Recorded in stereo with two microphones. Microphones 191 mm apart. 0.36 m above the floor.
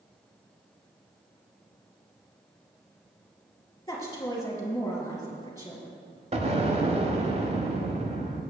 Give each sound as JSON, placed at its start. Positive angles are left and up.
{"t": 3.9, "sound": "a woman speaking", "side_deg": 15, "distance_m": 3.0}
{"t": 6.3, "sound": "an explosion", "side_deg": -35, "distance_m": 1.0}